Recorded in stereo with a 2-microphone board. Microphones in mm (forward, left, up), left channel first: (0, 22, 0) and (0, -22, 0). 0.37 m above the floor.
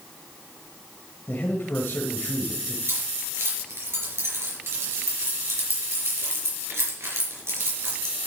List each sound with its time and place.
1.3 s a man speaking: 50° left (ahead or behind), 1.5 m
2.9 s keys jangling: 80° right, 4.5 m